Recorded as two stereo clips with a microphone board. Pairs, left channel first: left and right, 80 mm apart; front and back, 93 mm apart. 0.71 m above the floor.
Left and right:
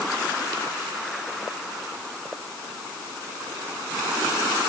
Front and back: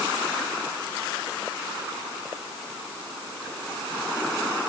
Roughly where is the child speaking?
I don't hear a child speaking.